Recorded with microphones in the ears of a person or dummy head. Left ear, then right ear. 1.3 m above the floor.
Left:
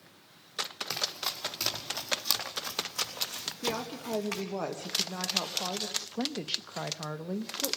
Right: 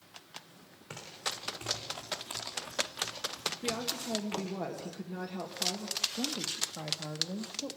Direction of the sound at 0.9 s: 60° left (ahead or behind).